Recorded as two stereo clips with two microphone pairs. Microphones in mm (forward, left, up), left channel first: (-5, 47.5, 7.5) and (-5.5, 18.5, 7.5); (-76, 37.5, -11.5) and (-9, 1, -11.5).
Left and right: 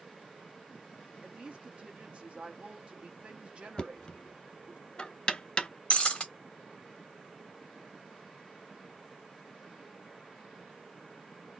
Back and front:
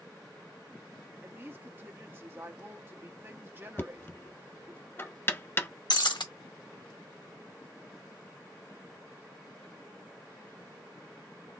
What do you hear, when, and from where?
1.2 s a woman speaking: 75° right, 1.0 m
3.8 s knocking: 120° left, 0.6 m
5.9 s breaking glass: 140° left, 1.2 m